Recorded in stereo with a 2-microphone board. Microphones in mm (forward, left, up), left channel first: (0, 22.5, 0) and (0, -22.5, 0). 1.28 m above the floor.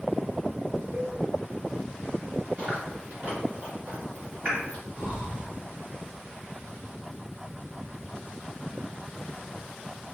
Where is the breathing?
40° right (ahead or behind), 1.2 m.